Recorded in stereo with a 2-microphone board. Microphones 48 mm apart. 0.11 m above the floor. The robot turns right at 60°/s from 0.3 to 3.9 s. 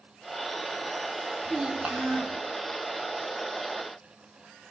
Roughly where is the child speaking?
Behind.